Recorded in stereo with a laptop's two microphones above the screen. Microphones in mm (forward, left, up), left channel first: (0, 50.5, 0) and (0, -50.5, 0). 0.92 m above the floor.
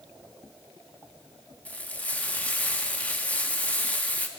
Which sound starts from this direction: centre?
Frying, at 1.6 s.